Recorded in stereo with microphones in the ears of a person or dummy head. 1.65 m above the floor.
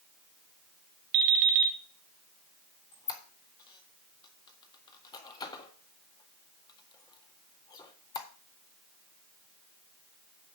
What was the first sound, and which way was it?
An alarm clock, 60° right (ahead or behind).